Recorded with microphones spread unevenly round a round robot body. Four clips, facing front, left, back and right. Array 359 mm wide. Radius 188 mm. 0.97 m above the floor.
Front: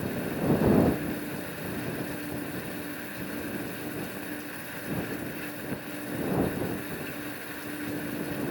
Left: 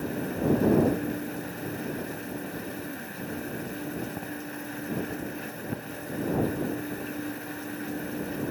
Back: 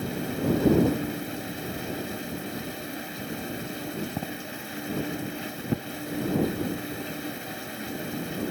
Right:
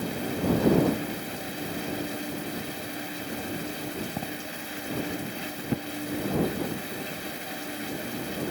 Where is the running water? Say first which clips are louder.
Even, back 1 dB; 155° right.